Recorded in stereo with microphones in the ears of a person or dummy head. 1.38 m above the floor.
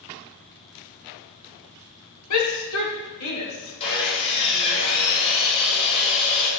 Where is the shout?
90° left, 3.5 m; by 4.7 s 85° left, 7 m.